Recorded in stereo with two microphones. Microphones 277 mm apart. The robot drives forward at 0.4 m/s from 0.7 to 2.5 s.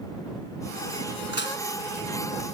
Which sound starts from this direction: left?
Dishes clattering, at 1.3 s.